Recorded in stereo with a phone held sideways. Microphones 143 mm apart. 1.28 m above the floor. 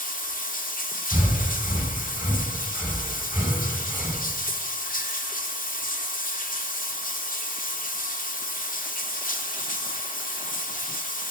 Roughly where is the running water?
Left.